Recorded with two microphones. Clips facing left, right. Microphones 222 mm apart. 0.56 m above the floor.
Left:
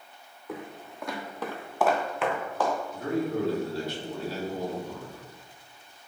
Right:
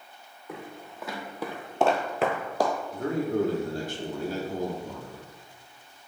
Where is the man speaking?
45° right (ahead or behind), 1.1 m.